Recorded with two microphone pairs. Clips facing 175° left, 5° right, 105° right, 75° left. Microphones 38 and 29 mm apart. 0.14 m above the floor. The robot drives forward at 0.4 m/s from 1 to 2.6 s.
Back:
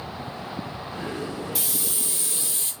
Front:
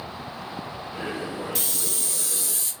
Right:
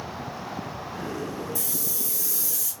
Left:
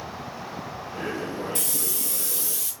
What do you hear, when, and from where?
1.6 s a hiss: 90° left, 0.8 m; by 2.7 s 120° left, 0.9 m